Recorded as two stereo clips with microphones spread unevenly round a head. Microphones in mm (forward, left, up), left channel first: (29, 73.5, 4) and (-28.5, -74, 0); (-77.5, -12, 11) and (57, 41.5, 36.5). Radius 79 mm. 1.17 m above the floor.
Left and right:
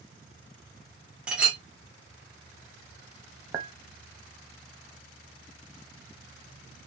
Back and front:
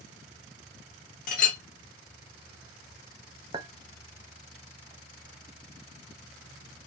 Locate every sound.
1.3 s a clink: 165° left, 0.8 m
3.5 s a clink: 40° right, 0.8 m